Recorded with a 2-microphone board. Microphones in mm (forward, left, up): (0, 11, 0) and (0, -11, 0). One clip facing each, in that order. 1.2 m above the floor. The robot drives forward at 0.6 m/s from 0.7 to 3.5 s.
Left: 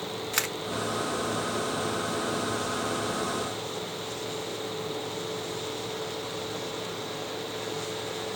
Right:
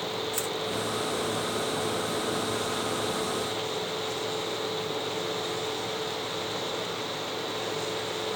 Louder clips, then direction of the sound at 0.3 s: Left 2 dB; 70° left (ahead or behind).